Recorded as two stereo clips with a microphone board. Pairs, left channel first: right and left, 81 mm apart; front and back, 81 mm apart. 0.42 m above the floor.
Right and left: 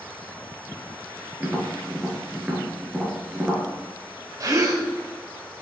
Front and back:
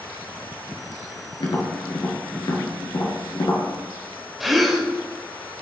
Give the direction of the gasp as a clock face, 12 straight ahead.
9 o'clock.